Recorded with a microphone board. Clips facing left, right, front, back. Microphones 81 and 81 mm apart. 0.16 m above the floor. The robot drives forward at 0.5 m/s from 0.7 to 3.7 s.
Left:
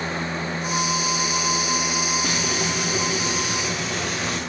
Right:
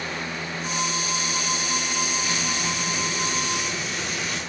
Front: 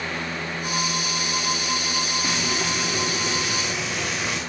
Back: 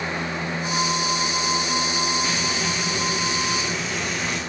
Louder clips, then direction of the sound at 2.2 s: Left 3 dB, even; 80° left.